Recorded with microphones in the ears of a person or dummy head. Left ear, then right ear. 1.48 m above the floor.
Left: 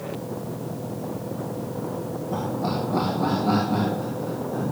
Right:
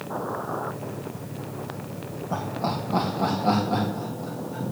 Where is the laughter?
60° right (ahead or behind), 1.1 m; by 4.7 s 85° right, 2.5 m.